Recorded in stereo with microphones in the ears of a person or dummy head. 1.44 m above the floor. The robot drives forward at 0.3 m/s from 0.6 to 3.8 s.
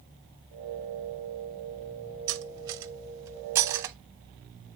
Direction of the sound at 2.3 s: 20° right (ahead or behind).